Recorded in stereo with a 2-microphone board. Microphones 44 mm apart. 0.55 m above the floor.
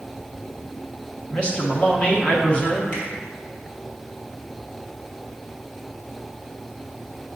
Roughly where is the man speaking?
Left.